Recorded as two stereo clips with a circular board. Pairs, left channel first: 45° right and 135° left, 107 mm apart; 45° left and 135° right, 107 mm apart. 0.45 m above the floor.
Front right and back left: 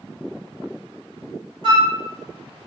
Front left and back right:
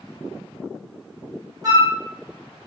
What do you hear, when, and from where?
1.6 s a flute: 170° left, 0.9 m